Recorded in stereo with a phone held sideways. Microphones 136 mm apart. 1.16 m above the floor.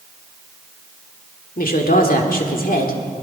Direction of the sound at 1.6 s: 80° left.